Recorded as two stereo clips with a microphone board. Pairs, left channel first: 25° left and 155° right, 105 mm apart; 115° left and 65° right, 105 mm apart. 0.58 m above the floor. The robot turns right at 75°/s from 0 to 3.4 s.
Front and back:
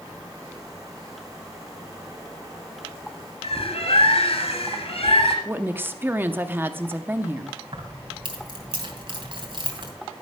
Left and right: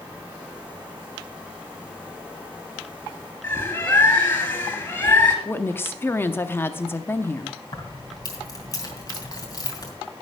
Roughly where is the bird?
Ahead left.